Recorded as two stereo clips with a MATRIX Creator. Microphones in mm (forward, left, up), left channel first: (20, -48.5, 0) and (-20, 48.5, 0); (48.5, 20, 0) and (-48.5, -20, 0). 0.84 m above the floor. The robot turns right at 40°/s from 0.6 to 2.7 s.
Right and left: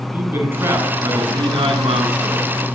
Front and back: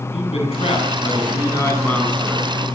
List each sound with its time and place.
0.1 s a man speaking: 45° left, 8.5 m; by 2.5 s 120° left, 8.5 m